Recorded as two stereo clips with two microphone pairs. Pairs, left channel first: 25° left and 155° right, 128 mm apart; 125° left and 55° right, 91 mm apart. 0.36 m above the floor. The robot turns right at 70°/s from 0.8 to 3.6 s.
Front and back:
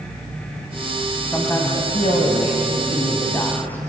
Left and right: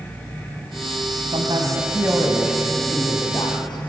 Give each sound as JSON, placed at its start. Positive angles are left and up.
{"t": 1.3, "sound": "a man speaking", "azimuth_deg": -55, "distance_m": 2.5}